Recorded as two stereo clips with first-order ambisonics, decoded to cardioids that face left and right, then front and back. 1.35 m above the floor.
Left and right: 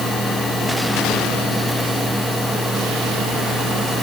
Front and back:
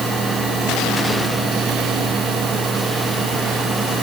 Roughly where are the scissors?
I don't hear scissors.